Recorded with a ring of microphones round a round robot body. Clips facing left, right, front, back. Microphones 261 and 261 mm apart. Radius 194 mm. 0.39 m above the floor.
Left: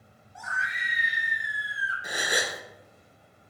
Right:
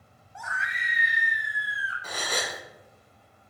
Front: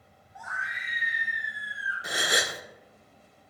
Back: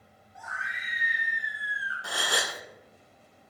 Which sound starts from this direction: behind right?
A scream, at 0.3 s.